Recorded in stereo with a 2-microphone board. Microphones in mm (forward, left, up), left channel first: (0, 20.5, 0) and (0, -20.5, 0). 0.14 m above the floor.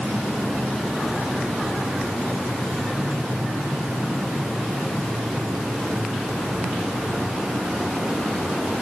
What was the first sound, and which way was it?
Only background noise.